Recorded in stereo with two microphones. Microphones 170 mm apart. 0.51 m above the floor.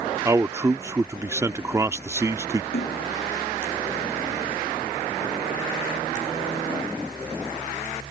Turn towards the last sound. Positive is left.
turn(degrees=85)